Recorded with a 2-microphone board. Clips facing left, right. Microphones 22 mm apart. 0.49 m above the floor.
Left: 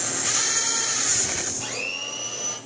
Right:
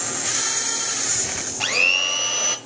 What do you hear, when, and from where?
1.6 s a blender: 60° right (ahead or behind), 1.1 m